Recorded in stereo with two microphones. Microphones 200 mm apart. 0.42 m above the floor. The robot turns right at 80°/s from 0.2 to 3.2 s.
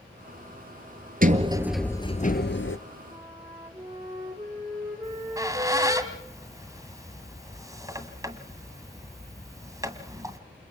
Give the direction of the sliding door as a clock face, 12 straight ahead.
1 o'clock.